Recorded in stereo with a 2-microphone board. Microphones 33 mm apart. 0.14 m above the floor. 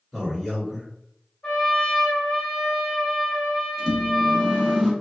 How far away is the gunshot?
I don't hear a gunshot.